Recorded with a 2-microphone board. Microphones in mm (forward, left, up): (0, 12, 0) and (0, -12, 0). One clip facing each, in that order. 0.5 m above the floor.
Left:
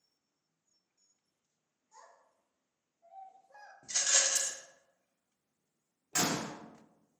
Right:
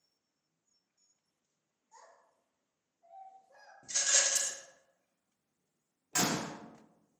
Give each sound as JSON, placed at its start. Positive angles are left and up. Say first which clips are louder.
{"t": 1.9, "sound": "a child speaking", "louder": "even", "side_deg": 5, "distance_m": 1.3}
{"t": 3.8, "sound": "a rattle", "louder": "even", "side_deg": 15, "distance_m": 0.6}
{"t": 6.1, "sound": "a door slam", "louder": "even", "side_deg": 5, "distance_m": 0.8}